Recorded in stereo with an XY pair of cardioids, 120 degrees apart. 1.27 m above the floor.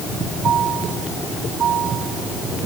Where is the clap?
No clap in this recording.